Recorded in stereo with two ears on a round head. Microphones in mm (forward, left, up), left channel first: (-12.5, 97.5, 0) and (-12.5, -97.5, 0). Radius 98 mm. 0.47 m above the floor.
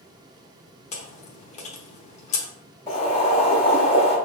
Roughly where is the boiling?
Left.